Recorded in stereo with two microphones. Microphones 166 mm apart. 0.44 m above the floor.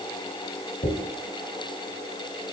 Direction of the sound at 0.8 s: 50° left (ahead or behind).